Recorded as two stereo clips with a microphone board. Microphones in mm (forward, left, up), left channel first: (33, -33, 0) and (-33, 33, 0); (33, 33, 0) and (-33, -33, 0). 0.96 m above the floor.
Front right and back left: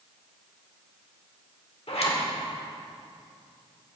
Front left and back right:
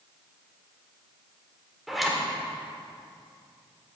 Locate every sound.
1.9 s a zipper: 45° right, 1.7 m